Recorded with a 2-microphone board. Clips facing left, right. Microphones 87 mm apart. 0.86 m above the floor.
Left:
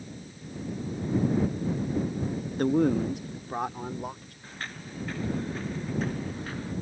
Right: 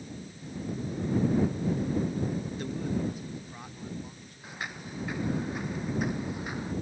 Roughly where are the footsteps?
Centre.